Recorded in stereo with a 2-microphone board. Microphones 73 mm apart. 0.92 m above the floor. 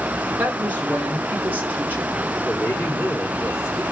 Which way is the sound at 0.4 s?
25° right (ahead or behind).